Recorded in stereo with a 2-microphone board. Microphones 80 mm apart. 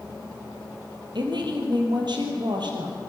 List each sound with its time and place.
1.1 s a woman speaking: 70° right (ahead or behind), 4 m